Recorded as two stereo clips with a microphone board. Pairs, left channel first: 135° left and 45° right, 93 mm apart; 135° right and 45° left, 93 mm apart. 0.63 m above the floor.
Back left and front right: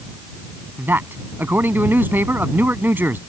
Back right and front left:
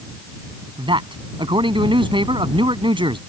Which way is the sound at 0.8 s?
20° left.